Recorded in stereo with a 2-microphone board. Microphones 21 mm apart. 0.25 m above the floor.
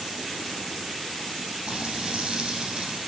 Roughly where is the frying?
Right.